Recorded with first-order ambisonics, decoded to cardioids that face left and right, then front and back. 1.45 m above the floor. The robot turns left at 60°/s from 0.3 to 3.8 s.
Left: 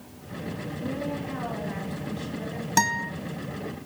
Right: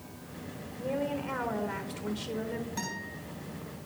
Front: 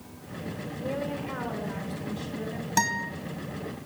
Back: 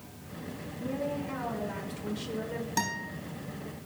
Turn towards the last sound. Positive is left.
turn(degrees=15)